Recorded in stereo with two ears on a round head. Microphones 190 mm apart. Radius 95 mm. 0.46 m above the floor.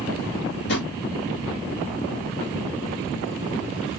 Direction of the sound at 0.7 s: 55° left (ahead or behind).